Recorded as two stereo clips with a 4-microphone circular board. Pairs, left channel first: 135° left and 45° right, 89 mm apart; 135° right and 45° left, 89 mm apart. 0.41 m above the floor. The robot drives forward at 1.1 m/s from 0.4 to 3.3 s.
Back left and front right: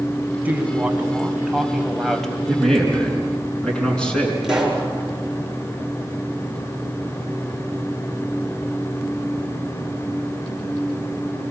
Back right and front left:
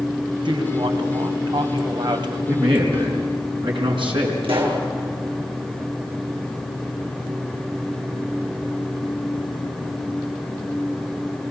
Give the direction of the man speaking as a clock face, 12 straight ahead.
10 o'clock.